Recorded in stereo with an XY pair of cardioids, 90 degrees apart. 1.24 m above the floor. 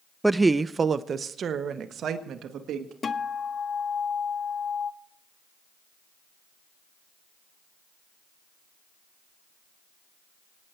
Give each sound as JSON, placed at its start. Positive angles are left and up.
{"t": 0.2, "sound": "a woman speaking", "azimuth_deg": -10, "distance_m": 0.5}
{"t": 3.0, "sound": "a guitar", "azimuth_deg": 45, "distance_m": 0.9}